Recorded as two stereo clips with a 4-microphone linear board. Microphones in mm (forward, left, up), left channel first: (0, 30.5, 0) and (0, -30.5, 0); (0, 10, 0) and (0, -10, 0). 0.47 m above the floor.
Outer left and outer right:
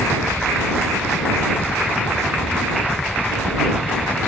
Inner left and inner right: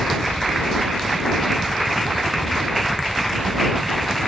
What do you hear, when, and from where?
0.0 s a helicopter: 50° left (ahead or behind)